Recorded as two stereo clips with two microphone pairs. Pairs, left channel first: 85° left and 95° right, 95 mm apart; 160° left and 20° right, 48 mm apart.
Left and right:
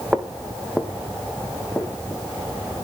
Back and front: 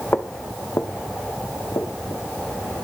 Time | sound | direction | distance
0.1 | footsteps | 170° right | 1.3 m